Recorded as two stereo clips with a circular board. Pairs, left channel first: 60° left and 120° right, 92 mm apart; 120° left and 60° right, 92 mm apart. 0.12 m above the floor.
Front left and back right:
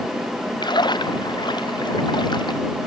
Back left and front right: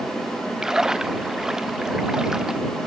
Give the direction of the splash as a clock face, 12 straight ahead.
11 o'clock.